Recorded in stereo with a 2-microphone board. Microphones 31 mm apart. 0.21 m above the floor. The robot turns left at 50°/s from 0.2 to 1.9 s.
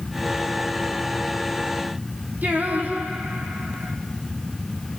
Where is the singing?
65° right (ahead or behind), 4 m.